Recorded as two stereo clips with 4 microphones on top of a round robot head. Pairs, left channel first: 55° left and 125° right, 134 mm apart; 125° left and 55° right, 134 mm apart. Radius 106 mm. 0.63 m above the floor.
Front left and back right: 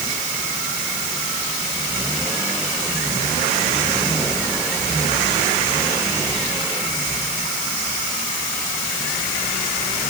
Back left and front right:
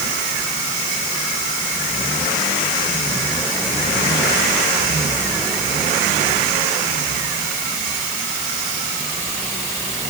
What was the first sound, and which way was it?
Only background noise.